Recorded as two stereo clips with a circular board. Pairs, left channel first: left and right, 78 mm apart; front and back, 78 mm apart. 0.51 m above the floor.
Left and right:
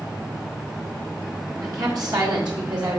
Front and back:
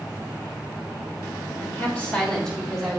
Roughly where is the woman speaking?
Ahead right.